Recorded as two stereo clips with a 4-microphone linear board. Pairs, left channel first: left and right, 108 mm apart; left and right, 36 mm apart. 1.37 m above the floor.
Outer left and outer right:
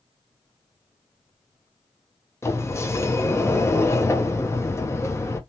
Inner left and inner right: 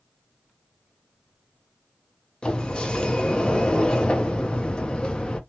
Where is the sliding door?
25° left (ahead or behind), 0.5 m.